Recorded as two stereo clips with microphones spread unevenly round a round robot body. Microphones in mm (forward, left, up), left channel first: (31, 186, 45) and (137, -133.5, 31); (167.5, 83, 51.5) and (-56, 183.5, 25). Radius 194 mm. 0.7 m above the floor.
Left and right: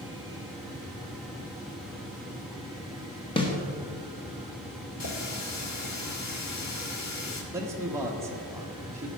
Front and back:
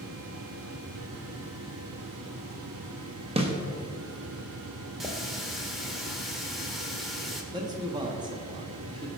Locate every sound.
3.4 s a snare drum: 175° left, 1.2 m
5.0 s a running tap: 65° left, 1.7 m
7.5 s a man speaking: 150° right, 1.0 m